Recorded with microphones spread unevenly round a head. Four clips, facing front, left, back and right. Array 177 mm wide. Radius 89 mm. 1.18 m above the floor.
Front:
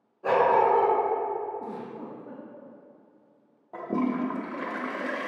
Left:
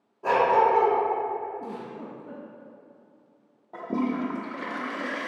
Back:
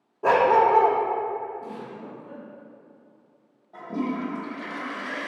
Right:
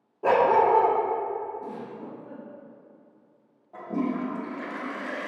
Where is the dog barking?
140° right, 0.8 m.